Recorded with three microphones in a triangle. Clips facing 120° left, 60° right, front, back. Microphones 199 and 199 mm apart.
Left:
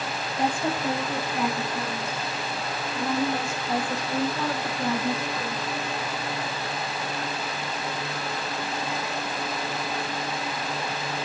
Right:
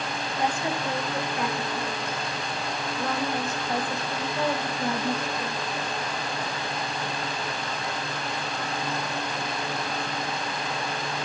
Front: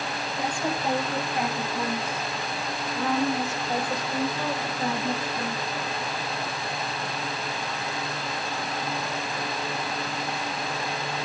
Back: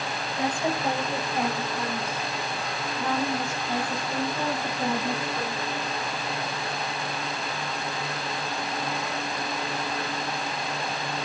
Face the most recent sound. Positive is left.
turn(degrees=65)